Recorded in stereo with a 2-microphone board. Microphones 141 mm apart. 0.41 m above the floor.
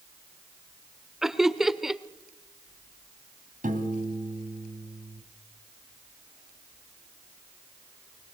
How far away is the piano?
About 2.5 m.